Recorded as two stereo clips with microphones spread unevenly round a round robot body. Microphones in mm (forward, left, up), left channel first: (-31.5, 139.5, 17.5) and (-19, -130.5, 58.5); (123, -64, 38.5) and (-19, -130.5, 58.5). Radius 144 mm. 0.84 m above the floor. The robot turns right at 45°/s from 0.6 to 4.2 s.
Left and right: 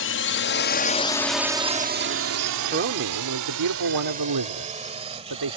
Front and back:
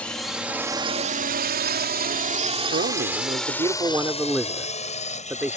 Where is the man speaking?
140° right; by 5.6 s 75° right.